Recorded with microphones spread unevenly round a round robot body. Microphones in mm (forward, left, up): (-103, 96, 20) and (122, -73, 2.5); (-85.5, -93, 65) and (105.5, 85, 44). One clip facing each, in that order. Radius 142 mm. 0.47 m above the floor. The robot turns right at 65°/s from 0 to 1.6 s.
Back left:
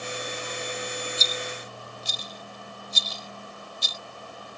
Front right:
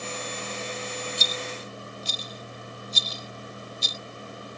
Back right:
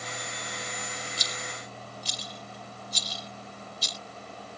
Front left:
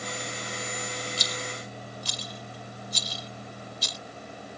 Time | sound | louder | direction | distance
1.2 | a rattle | even, front left 4 dB | 35° left | ?